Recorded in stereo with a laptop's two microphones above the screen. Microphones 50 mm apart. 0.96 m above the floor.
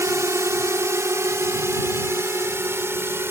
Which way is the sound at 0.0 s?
75° right (ahead or behind).